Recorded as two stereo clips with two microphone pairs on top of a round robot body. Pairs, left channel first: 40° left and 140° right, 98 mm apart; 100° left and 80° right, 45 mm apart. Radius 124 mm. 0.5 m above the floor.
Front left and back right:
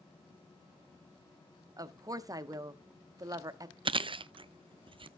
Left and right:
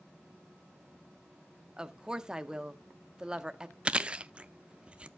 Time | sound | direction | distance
1.8 | a woman speaking | 140° right | 1.1 m
3.9 | chewing | 140° right | 0.6 m